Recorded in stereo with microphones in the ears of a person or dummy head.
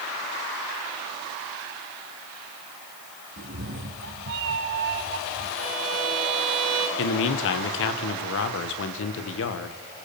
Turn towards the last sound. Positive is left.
turn(degrees=70)  # may be behind; listen again after turning